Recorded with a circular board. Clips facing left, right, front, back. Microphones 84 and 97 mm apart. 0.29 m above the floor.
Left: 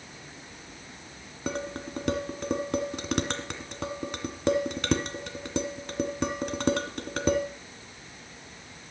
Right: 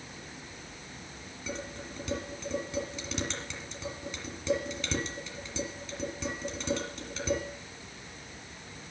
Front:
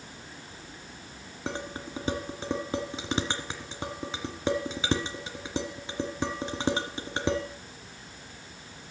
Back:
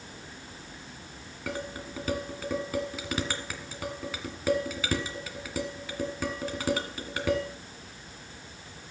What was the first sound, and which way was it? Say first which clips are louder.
Dishes clattering: left 7 dB, even; 65° left.